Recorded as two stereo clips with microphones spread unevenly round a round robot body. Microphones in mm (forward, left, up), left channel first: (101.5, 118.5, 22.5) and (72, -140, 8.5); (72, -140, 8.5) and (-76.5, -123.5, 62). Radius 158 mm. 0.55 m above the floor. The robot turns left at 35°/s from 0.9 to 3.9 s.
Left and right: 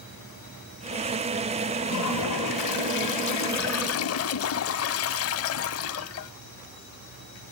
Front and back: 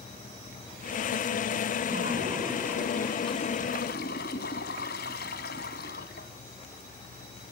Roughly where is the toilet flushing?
Behind left.